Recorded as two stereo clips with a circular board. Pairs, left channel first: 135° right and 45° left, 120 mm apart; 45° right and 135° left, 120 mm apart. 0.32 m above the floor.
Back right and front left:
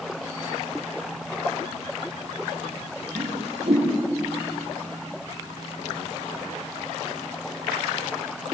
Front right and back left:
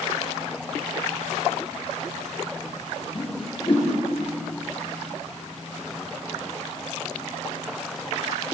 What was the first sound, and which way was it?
A whoosh, 5° left.